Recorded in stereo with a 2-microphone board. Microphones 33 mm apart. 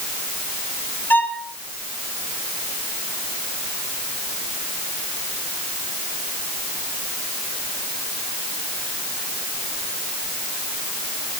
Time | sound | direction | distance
1.1 | a violin | 75° left (ahead or behind) | 3.5 m